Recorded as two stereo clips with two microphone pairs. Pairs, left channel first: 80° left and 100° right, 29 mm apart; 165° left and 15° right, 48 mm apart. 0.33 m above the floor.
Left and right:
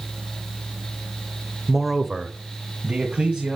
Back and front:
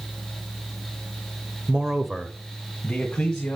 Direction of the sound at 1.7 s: 15° left.